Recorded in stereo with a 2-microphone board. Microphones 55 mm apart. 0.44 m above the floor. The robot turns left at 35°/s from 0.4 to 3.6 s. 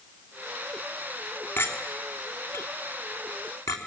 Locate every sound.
1.6 s a clink: 40° left (ahead or behind), 3.5 m; by 3.8 s 65° left (ahead or behind), 3.5 m